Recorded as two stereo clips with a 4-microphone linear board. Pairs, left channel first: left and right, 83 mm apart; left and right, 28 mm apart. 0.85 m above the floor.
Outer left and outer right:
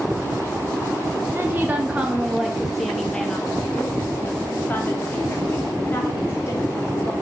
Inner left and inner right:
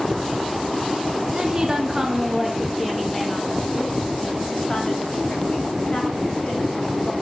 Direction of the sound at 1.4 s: 30° right (ahead or behind).